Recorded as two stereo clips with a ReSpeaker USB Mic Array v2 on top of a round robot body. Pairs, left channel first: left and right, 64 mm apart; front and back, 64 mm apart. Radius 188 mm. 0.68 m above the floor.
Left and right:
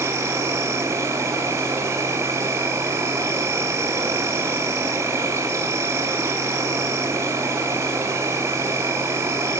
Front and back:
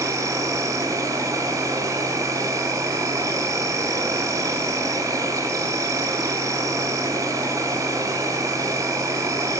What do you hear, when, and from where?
0.0 s an insect: 140° right, 0.7 m